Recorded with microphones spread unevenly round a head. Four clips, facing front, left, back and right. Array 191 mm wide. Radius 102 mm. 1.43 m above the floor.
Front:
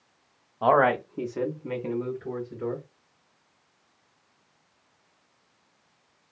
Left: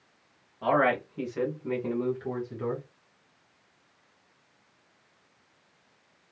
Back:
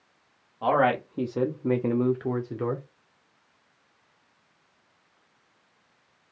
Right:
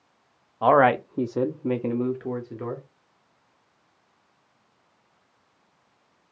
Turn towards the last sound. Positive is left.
turn(degrees=-170)